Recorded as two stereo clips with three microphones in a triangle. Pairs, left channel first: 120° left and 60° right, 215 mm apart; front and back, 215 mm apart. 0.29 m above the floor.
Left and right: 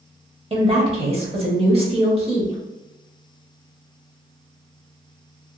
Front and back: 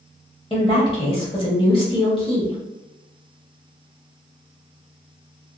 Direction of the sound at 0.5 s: 35° right.